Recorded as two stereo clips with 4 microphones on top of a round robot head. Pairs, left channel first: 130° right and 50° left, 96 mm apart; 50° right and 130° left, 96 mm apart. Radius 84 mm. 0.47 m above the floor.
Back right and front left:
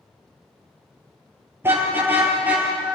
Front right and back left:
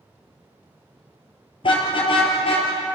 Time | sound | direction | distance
1.6 | a car horn | 15° right | 6 m